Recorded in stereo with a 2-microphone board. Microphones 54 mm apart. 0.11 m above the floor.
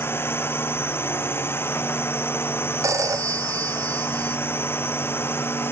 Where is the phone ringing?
75° right (ahead or behind).